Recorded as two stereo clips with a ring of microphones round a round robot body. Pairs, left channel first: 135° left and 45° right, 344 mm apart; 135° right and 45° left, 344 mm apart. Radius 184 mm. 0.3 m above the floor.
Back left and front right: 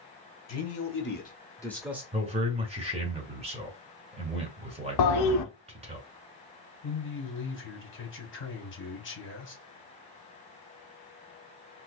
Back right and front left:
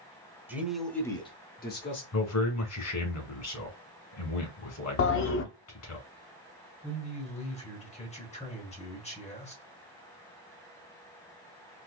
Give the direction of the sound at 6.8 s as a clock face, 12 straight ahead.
7 o'clock.